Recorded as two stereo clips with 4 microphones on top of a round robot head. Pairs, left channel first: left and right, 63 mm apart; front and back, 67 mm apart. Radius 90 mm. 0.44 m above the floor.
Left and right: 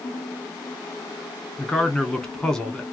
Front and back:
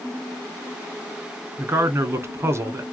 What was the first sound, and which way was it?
A man speaking, 165° left.